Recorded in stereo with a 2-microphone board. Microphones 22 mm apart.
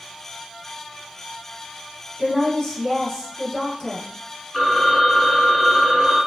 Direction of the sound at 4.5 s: 5° left (ahead or behind).